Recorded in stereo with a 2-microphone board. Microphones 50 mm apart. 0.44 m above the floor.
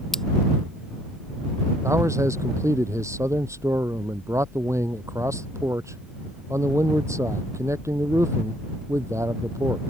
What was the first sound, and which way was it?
Scissors, 10° left (ahead or behind).